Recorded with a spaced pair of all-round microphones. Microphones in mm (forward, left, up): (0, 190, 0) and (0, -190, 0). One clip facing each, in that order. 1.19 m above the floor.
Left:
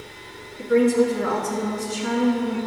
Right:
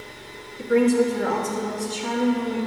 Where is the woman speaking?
5° right (ahead or behind), 1.7 m; by 2.6 s 35° left (ahead or behind), 2 m.